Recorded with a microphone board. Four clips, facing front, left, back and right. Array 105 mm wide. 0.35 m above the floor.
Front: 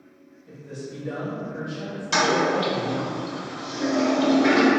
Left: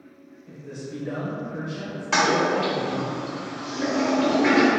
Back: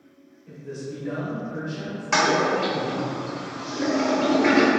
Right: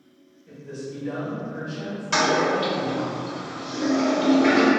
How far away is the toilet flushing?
About 1.1 m.